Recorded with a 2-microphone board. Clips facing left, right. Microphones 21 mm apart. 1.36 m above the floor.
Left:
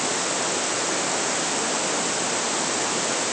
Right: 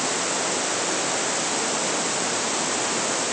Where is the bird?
I don't hear a bird.